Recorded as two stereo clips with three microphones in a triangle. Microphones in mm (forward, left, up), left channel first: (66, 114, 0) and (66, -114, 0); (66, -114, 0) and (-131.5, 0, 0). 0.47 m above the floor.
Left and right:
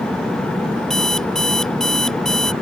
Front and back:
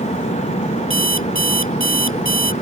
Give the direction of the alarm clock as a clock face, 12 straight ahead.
6 o'clock.